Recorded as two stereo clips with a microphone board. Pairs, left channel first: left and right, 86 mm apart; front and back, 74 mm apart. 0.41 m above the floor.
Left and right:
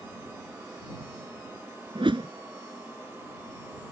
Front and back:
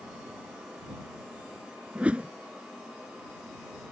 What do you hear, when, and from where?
1.9 s a whoosh: 110° right